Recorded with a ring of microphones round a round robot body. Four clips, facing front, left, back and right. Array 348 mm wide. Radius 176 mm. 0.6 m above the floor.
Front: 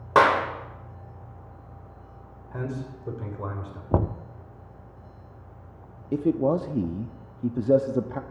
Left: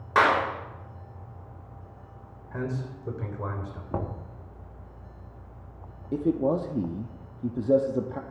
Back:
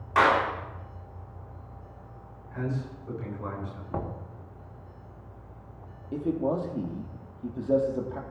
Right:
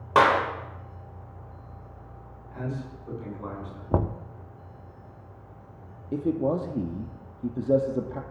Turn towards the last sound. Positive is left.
turn(degrees=5)